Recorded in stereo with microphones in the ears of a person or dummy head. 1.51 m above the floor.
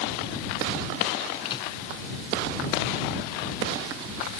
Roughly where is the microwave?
Left.